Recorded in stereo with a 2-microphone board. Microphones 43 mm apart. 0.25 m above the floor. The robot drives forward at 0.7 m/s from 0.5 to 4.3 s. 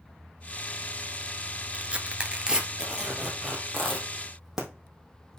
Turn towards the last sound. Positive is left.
turn(degrees=-5)  # may be behind; listen again after turning